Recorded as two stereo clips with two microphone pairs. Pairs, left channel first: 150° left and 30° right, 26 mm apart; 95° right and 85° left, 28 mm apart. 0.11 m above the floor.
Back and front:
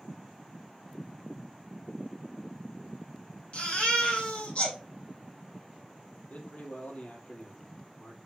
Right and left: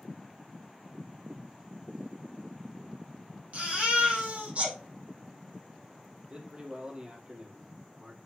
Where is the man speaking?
135° left, 3 m.